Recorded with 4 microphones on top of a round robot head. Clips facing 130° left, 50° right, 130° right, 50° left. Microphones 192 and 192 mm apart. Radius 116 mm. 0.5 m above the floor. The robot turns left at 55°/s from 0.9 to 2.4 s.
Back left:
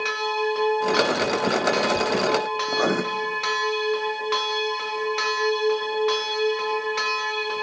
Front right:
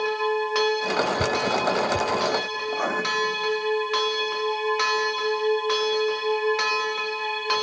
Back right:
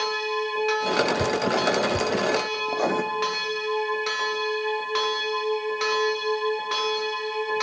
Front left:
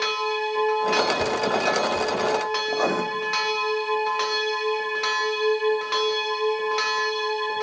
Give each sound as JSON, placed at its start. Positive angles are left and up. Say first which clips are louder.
{"t": 1.2, "sound": "dripping", "louder": "back left 2 dB, even", "azimuth_deg": -80, "distance_m": 0.9}
{"t": 2.7, "sound": "writing", "louder": "back left 5 dB, even", "azimuth_deg": 150, "distance_m": 1.1}